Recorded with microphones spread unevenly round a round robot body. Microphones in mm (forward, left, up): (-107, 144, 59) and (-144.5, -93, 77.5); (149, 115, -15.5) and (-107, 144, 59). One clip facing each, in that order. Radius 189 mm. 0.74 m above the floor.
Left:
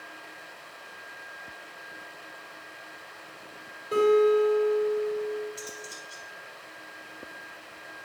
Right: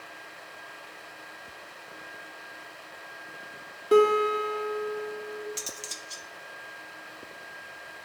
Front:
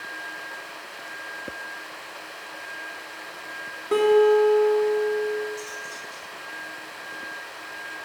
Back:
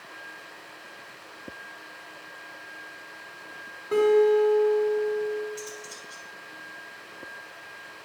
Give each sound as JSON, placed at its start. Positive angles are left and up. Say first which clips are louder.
{"t": 3.9, "sound": "a guitar", "louder": "left 1 dB, front 2 dB", "azimuth_deg": -60, "distance_m": 1.4}
{"t": 5.6, "sound": "cutlery clinking", "louder": "left 2 dB, front 1 dB", "azimuth_deg": -105, "distance_m": 0.7}